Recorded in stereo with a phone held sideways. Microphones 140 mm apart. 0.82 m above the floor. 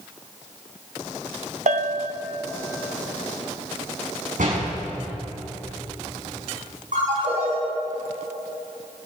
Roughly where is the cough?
I don't hear a cough.